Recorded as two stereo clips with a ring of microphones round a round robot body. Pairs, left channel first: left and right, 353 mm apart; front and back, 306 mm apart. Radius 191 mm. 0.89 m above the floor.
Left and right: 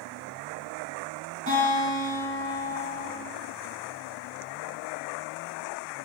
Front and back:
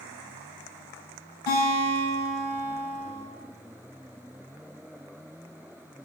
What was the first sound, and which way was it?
A guitar, 20° right.